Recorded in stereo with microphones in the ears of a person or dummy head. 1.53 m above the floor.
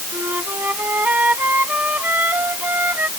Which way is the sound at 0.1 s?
10° right (ahead or behind).